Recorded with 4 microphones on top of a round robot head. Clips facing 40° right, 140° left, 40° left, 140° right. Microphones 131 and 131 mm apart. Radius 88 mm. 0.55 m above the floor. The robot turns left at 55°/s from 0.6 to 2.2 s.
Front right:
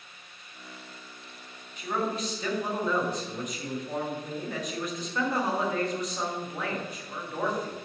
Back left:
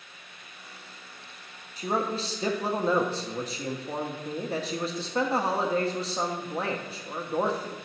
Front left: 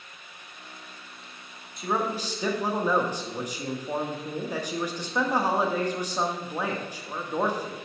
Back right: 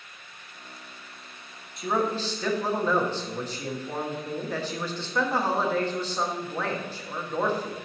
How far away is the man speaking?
About 0.8 m.